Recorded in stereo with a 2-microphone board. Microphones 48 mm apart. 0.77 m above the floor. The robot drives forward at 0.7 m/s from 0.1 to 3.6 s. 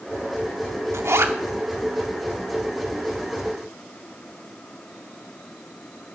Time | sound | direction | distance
0.9 | a zipper | 75° right (ahead or behind) | 0.9 m